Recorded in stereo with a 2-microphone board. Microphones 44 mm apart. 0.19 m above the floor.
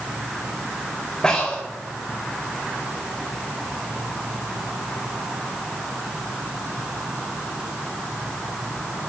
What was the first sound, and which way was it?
Breathing, 20° left (ahead or behind).